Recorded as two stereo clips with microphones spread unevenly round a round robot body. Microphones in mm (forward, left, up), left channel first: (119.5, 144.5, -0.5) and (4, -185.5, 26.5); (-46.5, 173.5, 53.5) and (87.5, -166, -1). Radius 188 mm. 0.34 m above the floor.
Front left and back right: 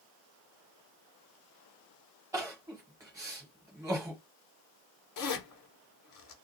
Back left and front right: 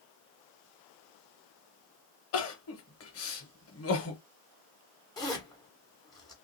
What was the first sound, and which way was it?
Crying, 170° left.